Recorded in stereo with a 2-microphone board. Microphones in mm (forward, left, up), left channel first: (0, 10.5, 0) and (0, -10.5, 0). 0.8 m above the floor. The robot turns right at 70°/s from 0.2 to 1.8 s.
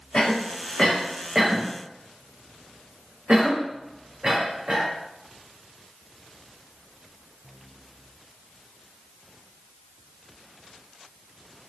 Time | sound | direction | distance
0.1 | a cough | 60° left (ahead or behind) | 1.0 m